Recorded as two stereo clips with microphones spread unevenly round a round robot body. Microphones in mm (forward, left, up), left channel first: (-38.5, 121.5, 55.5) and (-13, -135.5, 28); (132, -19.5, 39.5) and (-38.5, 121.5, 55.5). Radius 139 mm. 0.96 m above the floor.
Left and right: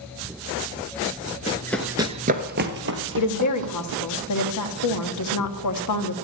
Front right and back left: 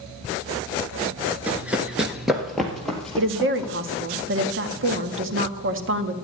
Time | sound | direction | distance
1.5 | running footsteps | 70° left | 1.0 m
3.2 | a woman speaking | 110° left | 1.6 m